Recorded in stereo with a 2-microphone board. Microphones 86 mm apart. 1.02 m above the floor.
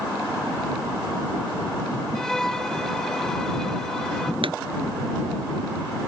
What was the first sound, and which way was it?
A violin, 5° left (ahead or behind).